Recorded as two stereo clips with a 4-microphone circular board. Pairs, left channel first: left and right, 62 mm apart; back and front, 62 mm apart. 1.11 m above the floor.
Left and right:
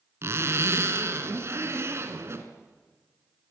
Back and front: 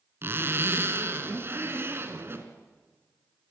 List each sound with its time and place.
0.2 s a zipper: 50° right, 2.5 m